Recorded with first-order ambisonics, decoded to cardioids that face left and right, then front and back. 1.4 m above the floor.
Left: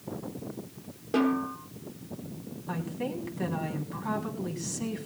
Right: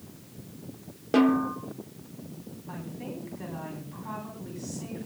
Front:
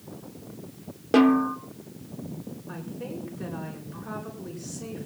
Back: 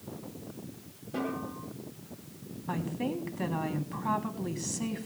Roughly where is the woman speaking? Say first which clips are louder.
Left 6 dB, back 5 dB; behind.